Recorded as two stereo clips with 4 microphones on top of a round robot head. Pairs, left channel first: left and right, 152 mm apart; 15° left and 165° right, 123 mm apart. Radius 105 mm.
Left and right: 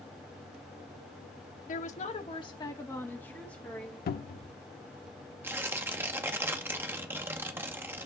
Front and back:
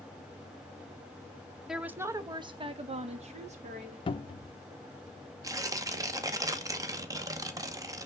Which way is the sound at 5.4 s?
150° right.